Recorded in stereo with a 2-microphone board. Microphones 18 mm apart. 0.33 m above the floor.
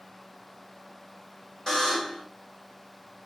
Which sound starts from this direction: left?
A buzzer, at 1.7 s.